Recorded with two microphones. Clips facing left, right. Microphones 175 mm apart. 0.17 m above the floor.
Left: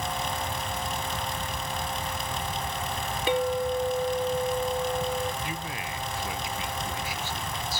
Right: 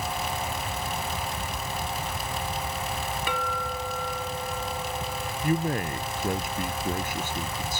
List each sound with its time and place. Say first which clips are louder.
3.3 s a clink: left 11 dB; 25° left (ahead or behind)
5.4 s a man speaking: right 9 dB; 50° right (ahead or behind)